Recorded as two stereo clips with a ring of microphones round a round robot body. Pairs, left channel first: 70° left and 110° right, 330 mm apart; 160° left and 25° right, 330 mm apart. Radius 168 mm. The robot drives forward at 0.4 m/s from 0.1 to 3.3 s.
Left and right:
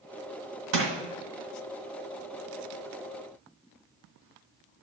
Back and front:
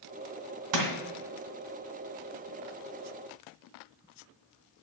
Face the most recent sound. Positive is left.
turn(degrees=-85)